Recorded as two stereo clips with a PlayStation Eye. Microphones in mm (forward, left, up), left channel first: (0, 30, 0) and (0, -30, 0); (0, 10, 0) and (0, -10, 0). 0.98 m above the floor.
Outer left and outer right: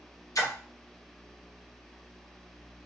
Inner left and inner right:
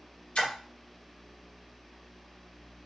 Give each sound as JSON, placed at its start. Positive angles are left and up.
{"t": 0.3, "sound": "a splash", "side_deg": 65, "distance_m": 0.7}